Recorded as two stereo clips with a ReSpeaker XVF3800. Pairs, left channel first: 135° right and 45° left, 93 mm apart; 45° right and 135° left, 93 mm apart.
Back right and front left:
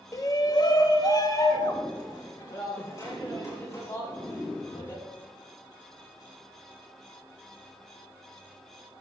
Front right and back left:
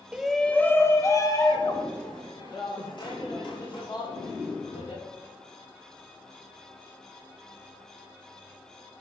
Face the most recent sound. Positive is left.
turn(degrees=-75)